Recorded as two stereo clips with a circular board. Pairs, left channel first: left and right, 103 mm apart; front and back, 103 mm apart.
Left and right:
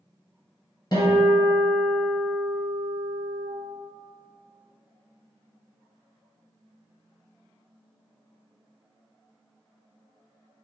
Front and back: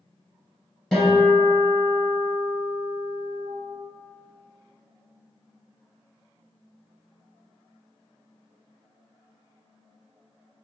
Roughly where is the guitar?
Left.